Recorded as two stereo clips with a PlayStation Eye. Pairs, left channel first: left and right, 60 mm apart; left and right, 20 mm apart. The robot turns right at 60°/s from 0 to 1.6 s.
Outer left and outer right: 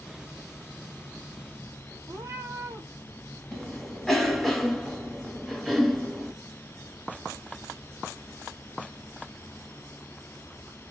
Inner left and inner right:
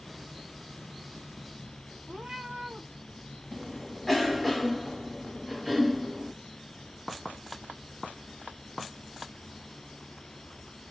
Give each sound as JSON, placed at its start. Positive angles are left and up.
{"t": 2.1, "sound": "a cat meowing", "side_deg": -55, "distance_m": 1.1}
{"t": 3.5, "sound": "a cough", "side_deg": 5, "distance_m": 1.3}